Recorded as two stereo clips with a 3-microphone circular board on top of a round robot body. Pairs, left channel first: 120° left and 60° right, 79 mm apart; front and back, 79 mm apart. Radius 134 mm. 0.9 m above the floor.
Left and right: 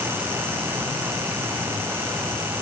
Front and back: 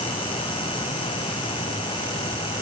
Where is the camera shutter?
No camera shutter in this recording.